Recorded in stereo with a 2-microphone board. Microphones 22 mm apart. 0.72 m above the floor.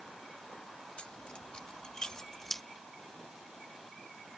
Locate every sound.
1.0 s keys jangling: 55° left (ahead or behind); by 2.6 s 10° left (ahead or behind)